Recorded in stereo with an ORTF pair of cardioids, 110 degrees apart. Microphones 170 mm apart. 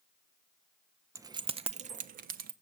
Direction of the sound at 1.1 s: 15° right.